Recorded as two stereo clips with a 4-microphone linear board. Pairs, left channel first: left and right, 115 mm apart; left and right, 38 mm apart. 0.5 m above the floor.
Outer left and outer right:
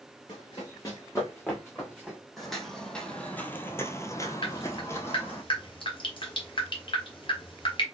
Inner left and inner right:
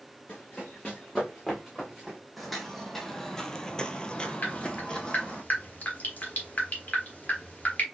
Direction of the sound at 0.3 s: 45° left (ahead or behind).